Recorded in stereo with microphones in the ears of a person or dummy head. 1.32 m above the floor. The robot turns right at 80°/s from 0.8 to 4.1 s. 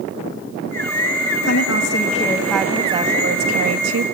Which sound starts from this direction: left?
A woman speaking, at 1.4 s.